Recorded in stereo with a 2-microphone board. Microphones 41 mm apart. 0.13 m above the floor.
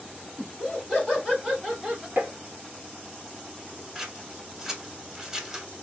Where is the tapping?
50° right (ahead or behind), 1.1 m.